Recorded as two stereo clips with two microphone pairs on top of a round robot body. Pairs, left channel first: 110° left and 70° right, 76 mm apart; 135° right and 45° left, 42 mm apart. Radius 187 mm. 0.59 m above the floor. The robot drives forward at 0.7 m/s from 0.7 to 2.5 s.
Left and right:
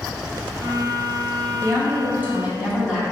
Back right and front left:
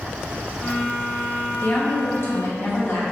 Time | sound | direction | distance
1.6 | a woman speaking | 110° right | 0.9 m